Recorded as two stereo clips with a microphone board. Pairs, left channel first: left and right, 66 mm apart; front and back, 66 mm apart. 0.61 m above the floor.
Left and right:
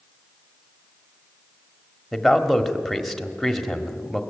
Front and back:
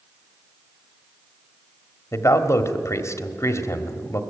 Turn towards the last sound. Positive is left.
turn(degrees=0)